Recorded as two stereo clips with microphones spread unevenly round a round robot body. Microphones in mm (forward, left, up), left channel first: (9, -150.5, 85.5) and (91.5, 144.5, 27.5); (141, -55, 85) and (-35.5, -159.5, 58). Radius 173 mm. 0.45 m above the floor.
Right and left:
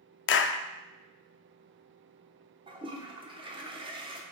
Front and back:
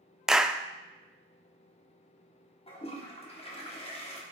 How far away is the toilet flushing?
About 1.2 m.